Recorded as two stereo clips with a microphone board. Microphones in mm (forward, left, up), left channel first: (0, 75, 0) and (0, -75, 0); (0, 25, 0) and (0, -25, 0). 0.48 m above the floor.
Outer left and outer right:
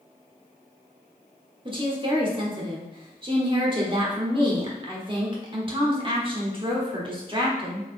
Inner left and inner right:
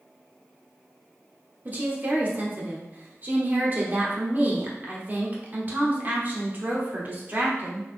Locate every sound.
1.6 s a woman speaking: 35° right (ahead or behind), 1.1 m